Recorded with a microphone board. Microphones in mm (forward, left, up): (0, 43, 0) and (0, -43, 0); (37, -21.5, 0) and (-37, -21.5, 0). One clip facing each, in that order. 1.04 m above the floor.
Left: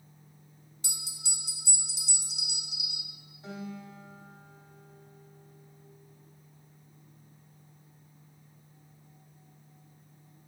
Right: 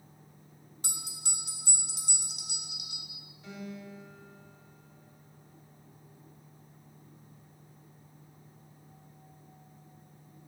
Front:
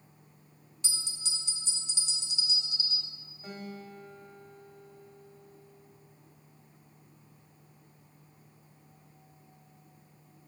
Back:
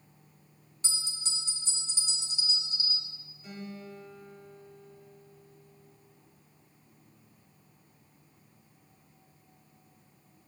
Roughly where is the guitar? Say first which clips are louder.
Left 2 dB, even; ahead left.